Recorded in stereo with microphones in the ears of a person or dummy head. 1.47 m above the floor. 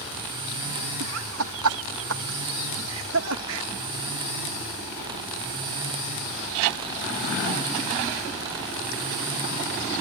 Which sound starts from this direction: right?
Laughter, at 1.0 s.